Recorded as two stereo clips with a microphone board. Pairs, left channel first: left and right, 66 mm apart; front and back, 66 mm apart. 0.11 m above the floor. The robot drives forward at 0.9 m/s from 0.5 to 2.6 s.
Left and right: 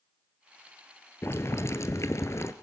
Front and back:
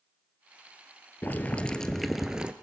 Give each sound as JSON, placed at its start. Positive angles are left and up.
{"t": 1.2, "sound": "boiling", "azimuth_deg": 50, "distance_m": 1.5}